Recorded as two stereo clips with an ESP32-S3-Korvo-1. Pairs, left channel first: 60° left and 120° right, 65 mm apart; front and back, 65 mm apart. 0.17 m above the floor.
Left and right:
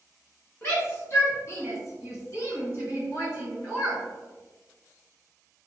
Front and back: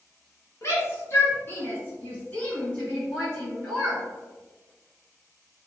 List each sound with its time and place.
0.6 s a shout: 20° left, 1.5 m; by 4.0 s 85° left, 2 m